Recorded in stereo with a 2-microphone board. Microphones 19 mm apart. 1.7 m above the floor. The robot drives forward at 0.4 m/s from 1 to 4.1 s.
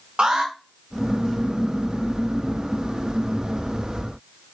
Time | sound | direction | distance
0.2 | an alarm | 55° right (ahead or behind) | 1.9 m